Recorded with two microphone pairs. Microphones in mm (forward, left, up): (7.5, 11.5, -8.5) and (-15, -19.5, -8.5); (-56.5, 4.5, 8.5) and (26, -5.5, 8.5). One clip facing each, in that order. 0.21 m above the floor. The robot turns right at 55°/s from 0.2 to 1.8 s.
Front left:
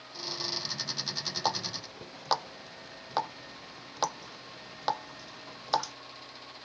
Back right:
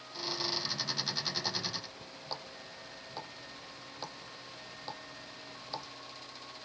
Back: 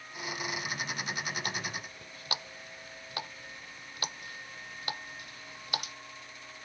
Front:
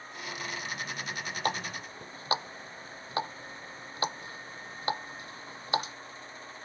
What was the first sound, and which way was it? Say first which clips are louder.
A running tap: front left 5 dB, front 5 dB; 35° left.